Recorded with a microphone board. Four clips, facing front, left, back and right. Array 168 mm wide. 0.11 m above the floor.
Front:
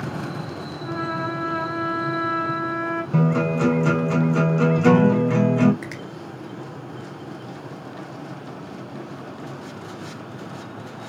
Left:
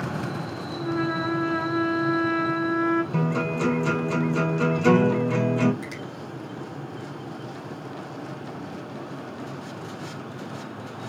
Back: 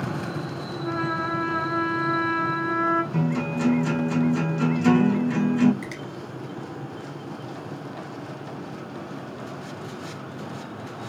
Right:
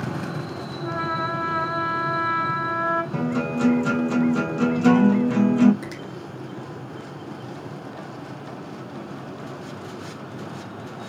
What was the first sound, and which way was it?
A trumpet, 100° right.